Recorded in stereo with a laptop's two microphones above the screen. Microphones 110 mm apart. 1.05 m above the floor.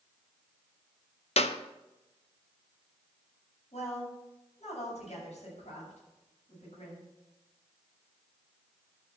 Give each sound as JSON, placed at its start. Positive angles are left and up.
{"t": 1.4, "sound": "a clap", "side_deg": 65, "distance_m": 0.7}
{"t": 3.7, "sound": "a woman speaking", "side_deg": 70, "distance_m": 7.5}